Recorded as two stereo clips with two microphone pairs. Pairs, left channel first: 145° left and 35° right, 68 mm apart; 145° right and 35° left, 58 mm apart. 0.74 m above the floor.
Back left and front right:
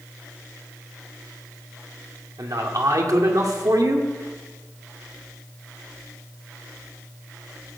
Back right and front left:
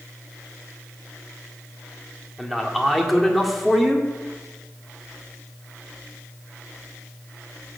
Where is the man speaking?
55° right, 1.8 m.